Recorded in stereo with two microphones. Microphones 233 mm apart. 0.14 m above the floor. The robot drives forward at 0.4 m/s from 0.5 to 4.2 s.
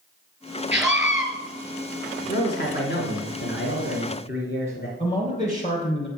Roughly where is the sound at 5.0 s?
Left.